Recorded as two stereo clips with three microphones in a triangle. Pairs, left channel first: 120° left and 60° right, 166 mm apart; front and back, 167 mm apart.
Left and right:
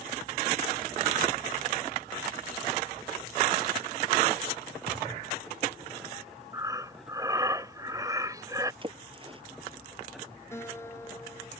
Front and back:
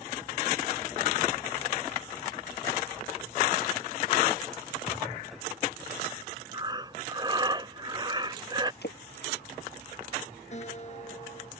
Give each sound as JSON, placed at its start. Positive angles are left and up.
{"t": 4.9, "sound": "a thud", "azimuth_deg": -60}
{"t": 6.5, "sound": "breathing", "azimuth_deg": -125}
{"t": 8.8, "sound": "a splash", "azimuth_deg": 0}
{"t": 10.5, "sound": "a guitar", "azimuth_deg": 45}